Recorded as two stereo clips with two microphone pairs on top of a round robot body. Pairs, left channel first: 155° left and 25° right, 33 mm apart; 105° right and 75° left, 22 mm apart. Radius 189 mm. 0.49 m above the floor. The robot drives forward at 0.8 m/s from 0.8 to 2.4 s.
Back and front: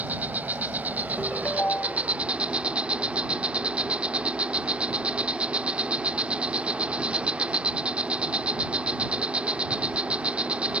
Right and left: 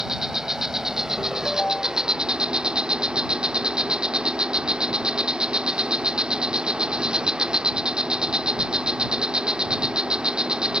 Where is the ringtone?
155° right; by 2.1 s 160° right.